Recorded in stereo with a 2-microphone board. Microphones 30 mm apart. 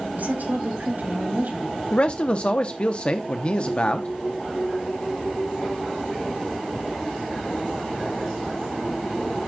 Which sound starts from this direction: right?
A woman speaking, at 0.1 s.